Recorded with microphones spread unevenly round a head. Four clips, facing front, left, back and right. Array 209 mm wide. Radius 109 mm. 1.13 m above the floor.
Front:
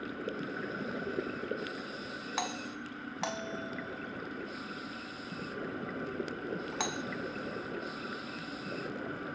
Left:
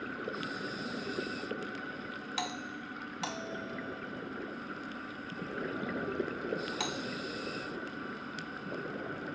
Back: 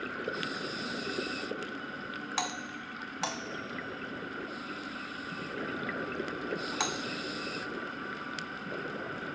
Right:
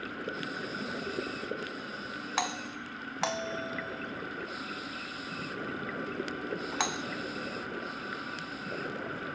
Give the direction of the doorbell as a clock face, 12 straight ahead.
3 o'clock.